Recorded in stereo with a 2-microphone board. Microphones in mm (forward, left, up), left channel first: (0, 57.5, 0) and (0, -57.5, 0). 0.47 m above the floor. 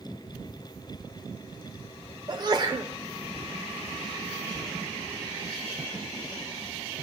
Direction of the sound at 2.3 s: 35° right (ahead or behind).